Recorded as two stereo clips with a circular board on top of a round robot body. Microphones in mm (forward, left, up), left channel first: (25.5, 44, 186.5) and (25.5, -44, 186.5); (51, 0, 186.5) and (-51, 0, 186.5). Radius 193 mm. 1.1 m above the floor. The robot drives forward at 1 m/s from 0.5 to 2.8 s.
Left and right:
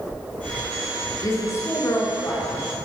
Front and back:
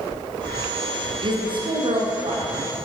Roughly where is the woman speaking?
Behind left.